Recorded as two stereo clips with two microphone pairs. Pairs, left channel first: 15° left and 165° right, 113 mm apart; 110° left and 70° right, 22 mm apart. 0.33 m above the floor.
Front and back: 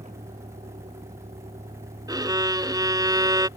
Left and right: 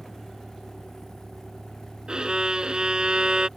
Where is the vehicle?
155° right; by 3.6 s 160° right.